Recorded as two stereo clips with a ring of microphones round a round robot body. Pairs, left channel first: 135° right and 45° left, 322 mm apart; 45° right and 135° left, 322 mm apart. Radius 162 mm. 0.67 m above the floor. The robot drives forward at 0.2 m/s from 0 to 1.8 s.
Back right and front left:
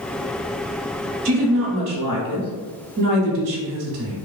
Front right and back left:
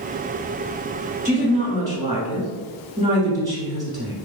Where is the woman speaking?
55° left, 1.3 m; by 4.2 s 60° left, 1.3 m.